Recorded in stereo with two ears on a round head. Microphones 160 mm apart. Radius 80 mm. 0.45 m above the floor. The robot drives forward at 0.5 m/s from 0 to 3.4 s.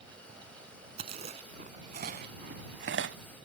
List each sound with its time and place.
1.0 s chewing: 35° right (ahead or behind); by 3.2 s 75° right (ahead or behind)